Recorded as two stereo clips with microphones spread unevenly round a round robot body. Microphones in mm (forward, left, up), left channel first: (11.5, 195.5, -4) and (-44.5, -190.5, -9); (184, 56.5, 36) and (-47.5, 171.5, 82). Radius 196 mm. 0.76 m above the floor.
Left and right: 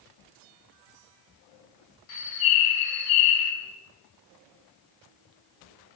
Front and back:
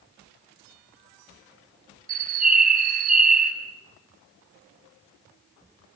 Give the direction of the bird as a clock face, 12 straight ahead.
9 o'clock.